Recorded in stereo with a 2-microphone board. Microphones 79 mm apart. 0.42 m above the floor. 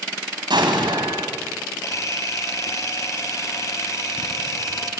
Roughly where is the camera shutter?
Left.